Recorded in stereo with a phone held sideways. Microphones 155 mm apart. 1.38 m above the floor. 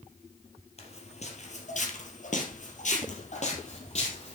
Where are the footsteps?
40° left (ahead or behind), 2.5 m; by 4.3 s 45° left (ahead or behind), 3.5 m.